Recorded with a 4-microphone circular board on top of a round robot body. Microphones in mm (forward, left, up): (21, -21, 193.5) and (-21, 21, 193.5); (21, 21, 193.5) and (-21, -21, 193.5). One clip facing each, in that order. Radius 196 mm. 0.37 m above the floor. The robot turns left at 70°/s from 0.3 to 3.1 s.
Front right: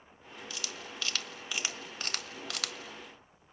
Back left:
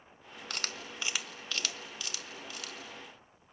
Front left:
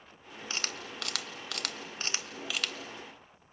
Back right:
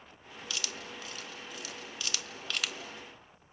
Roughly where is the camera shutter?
Left.